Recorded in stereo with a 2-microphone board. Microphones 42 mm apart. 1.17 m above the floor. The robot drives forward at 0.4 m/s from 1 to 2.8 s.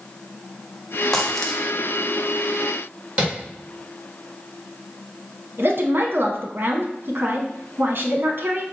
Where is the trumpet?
No trumpet in this recording.